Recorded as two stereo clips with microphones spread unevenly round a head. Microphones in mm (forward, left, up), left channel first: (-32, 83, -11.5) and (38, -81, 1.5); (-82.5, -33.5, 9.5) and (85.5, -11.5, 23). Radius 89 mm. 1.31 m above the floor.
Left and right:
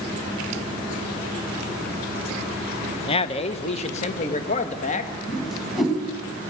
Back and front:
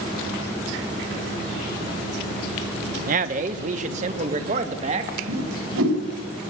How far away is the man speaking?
About 1.2 m.